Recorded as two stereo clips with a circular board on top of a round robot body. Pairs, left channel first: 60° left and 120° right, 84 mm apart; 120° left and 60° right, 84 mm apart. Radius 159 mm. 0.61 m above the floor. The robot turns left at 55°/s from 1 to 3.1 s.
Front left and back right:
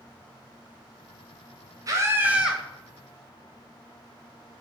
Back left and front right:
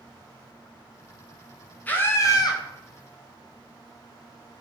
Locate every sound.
1.9 s a scream: 170° right, 3.5 m; by 2.6 s 150° left, 3.5 m